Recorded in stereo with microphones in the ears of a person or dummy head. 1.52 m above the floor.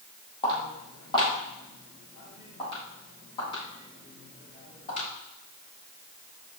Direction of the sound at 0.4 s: 35° left (ahead or behind).